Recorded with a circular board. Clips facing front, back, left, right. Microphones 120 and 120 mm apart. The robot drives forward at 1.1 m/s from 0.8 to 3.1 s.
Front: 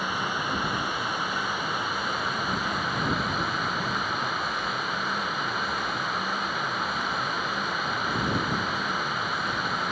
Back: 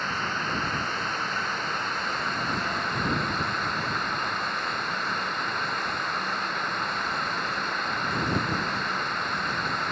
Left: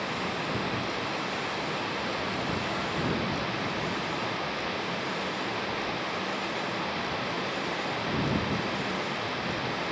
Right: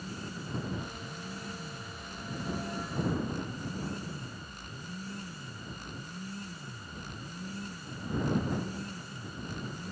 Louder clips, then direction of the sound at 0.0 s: Front 1 dB, left 10 dB; 80° left.